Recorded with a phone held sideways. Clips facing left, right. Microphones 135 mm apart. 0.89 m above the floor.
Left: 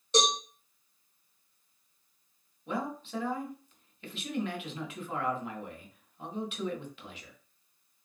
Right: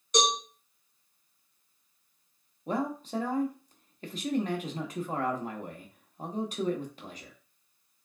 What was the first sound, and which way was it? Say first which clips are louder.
A cowbell: even; 30° left (ahead or behind).